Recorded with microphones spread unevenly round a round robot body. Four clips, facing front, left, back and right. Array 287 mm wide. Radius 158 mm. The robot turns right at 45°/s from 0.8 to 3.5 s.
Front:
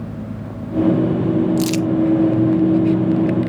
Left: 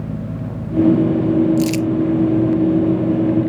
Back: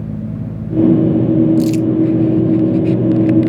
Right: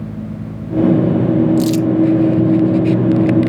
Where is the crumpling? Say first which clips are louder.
Right 3 dB, back 5 dB; 5° right, 0.8 m; by 1.9 s 10° left, 0.8 m.